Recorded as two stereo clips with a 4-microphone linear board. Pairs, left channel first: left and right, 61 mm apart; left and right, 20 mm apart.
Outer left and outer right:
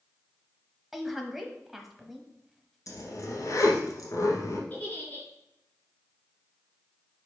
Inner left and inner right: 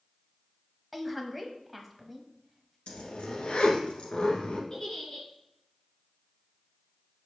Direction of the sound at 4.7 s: 30° left (ahead or behind).